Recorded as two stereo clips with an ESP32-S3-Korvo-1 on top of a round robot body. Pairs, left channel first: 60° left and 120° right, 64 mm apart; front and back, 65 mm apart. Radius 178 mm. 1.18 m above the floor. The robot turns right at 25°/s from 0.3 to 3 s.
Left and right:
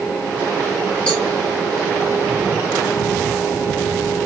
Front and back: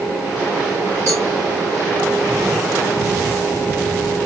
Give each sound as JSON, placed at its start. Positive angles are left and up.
{"t": 1.1, "sound": "a cowbell", "azimuth_deg": 125, "distance_m": 1.1}